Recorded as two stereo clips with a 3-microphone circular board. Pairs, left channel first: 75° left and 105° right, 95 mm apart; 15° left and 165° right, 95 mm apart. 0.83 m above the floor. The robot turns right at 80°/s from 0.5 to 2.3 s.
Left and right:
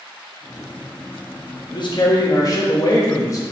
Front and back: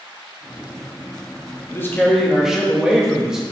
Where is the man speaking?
65° left, 1.3 m; by 3.4 s 110° left, 1.3 m.